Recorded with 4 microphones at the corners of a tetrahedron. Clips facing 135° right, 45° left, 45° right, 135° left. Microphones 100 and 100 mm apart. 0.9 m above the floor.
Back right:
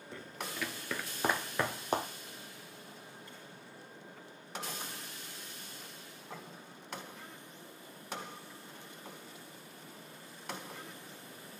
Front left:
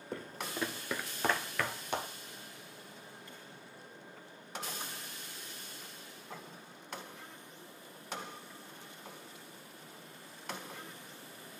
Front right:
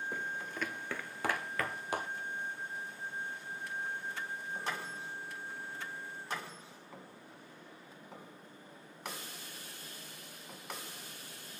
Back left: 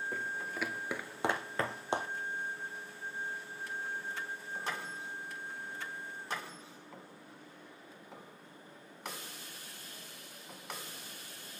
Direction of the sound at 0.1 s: 40° left.